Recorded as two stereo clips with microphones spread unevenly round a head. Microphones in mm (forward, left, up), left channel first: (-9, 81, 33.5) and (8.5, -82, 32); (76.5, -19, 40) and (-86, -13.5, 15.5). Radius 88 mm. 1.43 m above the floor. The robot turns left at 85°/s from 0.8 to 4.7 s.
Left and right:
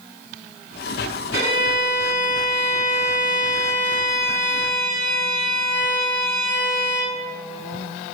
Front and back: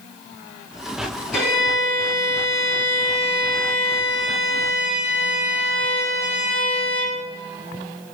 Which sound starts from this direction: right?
A violin, at 1.3 s.